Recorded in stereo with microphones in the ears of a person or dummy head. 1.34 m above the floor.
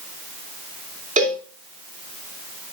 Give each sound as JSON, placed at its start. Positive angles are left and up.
{"t": 1.2, "sound": "a cowbell", "side_deg": -35, "distance_m": 2.5}